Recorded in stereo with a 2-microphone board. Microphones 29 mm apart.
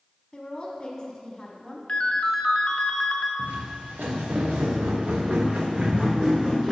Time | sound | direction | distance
0.3 | a woman speaking | 20° left (ahead or behind) | 1.0 m
1.9 | a ringtone | 40° left (ahead or behind) | 0.7 m
3.4 | footsteps | 85° right | 1.8 m